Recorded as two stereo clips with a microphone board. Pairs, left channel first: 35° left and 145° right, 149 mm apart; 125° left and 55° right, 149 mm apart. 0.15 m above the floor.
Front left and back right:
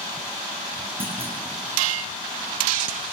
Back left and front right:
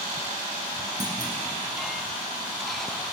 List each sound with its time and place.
1.0 s a clunk: 95° right, 3 m